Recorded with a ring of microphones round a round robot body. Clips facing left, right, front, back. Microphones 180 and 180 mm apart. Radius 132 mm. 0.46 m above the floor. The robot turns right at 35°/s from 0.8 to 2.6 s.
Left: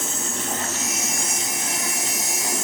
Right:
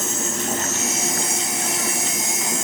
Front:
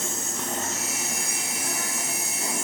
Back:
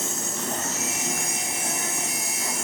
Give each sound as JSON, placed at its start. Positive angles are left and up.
{"t": 0.0, "sound": "an insect", "azimuth_deg": -140, "distance_m": 8.5}